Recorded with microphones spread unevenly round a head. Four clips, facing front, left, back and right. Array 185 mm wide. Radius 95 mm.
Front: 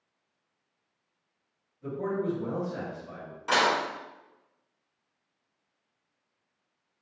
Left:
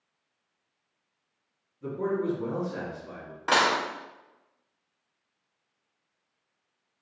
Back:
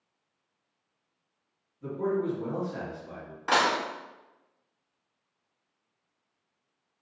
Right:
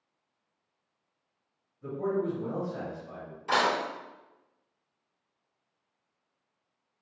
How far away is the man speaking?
About 1.6 m.